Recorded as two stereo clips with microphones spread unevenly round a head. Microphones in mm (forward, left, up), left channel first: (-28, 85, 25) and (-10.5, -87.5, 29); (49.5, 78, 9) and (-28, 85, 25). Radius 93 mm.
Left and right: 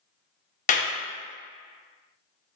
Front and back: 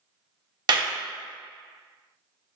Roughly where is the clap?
Behind left.